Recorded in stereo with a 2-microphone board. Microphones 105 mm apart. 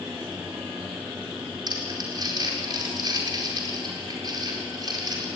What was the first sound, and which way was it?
Crumpling, 40° right (ahead or behind).